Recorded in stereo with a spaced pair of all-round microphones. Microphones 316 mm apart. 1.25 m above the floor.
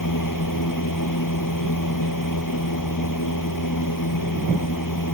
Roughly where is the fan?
Left.